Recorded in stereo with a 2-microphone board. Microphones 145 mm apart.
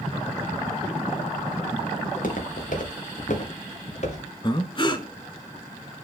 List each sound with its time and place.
2.0 s footsteps: 70° left (ahead or behind), 4 m; by 4.2 s 50° left (ahead or behind), 4 m
4.4 s breathing: 35° left (ahead or behind), 1.0 m